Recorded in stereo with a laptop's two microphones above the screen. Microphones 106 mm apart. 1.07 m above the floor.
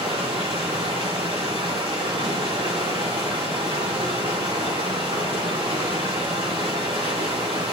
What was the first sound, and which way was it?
Running water, 60° right (ahead or behind).